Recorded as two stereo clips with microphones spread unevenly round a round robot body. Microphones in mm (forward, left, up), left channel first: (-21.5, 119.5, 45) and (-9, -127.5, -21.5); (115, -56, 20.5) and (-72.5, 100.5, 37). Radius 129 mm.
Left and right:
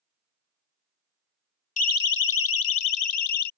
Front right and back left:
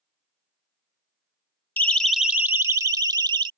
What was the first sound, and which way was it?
A siren, 30° left.